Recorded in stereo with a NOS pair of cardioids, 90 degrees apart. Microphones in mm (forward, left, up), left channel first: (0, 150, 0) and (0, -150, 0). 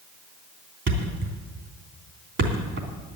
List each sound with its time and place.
0.9 s a thud: 40° right, 3 m